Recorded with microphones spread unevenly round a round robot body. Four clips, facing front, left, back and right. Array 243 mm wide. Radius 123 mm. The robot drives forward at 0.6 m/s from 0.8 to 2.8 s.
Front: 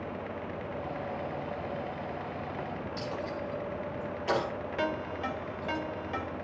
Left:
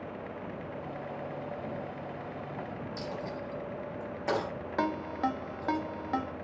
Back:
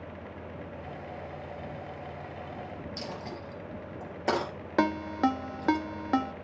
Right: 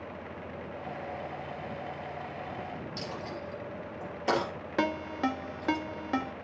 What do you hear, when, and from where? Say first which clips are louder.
3.0 s a dropped coin: left 1 dB, front 5 dB; straight behind, 4 m
4.8 s a ringtone: right 1 dB, back 8 dB; 170° right, 0.9 m